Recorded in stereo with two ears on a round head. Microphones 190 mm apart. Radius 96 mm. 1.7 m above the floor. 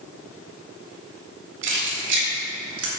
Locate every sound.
1.6 s keys jangling: 60° right (ahead or behind), 2.5 m; by 2.9 s 70° right (ahead or behind), 2 m